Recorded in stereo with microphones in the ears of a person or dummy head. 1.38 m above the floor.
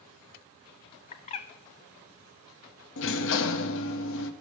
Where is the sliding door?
65° left (ahead or behind), 0.8 m.